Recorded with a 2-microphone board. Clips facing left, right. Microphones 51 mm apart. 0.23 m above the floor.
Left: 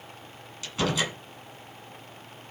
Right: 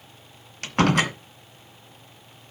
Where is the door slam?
55° right (ahead or behind), 1.8 m.